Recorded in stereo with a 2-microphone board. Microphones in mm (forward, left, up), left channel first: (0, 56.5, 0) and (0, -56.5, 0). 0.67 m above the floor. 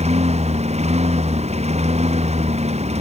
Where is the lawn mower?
70° right (ahead or behind).